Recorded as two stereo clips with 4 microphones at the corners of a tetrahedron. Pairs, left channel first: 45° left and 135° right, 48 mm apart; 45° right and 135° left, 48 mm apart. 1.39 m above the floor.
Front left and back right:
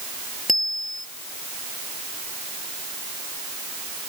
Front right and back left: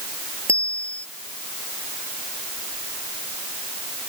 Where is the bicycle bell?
130° left.